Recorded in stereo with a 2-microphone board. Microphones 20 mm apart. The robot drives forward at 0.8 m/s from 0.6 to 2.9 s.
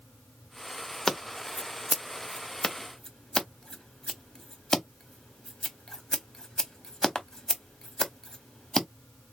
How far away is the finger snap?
I don't hear a finger snap.